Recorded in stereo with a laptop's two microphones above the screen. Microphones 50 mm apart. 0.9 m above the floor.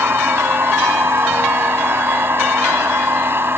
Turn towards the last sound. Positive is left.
turn(degrees=-50)  # may be behind; listen again after turning